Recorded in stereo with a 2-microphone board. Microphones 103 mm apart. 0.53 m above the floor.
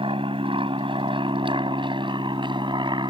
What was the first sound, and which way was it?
An aircraft, 60° right (ahead or behind).